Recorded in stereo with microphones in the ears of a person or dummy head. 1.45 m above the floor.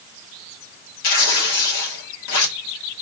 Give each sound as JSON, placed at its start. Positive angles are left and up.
{"t": 1.0, "sound": "tearing paper", "side_deg": 80, "distance_m": 6.0}